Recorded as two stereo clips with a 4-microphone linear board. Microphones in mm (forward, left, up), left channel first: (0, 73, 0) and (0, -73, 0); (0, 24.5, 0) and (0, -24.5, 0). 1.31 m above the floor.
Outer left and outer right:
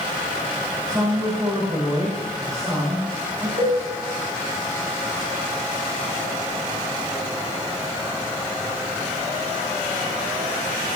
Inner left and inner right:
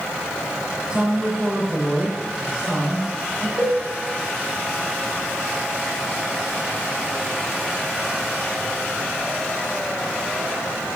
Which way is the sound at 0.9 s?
25° right (ahead or behind).